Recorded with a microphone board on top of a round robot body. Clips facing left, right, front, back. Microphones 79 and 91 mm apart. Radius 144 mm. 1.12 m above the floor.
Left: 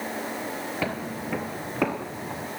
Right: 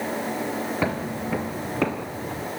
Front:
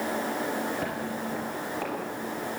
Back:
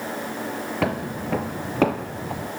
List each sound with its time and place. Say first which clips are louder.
0.8 s footsteps: right 4 dB, back 5 dB; 160° right, 1.2 m; by 2.5 s 170° left, 2.5 m